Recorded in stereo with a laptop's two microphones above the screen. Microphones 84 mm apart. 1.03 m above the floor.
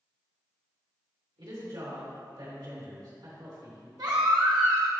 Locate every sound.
1.4 s a woman speaking: 75° right (ahead or behind), 2.5 m
4.0 s a baby crying: 60° right (ahead or behind), 1.0 m